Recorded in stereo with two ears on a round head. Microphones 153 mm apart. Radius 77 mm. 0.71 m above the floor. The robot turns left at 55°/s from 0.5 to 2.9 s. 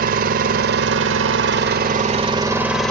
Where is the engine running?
50° right, 1.1 m; by 2.9 s 175° left, 1.1 m.